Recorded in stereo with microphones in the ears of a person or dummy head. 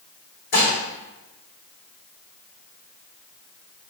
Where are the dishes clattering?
50° left (ahead or behind), 2 m.